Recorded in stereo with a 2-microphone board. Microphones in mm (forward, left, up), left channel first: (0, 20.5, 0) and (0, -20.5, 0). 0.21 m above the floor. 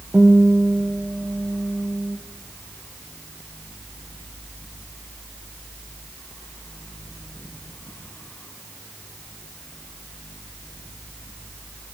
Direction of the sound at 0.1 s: 35° right (ahead or behind).